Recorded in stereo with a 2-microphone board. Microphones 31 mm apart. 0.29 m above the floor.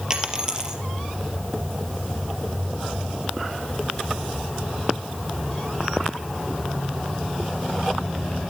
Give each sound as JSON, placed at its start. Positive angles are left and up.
{"t": 0.1, "sound": "a dropped coin", "side_deg": -25, "distance_m": 3.5}